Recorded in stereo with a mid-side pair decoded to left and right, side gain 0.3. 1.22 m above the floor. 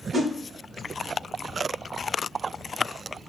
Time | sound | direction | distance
0.1 | a whoosh | 60° right | 1.0 m